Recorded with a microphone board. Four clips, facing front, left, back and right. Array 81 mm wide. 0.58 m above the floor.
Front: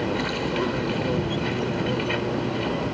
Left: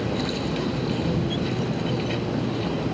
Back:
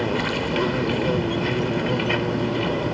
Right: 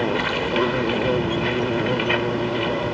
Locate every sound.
0.0 s an insect: 105° right